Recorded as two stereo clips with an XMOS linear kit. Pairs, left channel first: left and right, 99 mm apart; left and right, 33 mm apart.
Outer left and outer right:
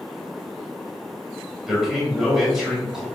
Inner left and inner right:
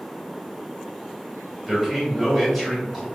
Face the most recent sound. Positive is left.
turn(degrees=-5)  # may be behind; listen again after turning